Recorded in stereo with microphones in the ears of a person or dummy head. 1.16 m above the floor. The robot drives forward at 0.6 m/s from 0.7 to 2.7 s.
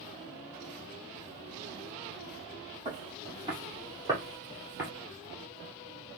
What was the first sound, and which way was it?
Footsteps, 20° right (ahead or behind).